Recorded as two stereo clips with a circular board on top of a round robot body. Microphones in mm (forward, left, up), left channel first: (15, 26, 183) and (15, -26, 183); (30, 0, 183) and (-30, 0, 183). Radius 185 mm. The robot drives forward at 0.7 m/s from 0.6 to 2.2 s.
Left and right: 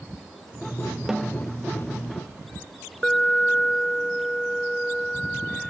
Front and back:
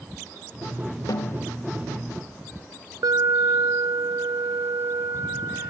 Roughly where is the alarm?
Behind.